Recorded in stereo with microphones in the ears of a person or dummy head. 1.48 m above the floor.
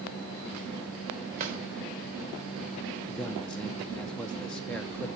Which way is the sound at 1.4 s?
45° right (ahead or behind).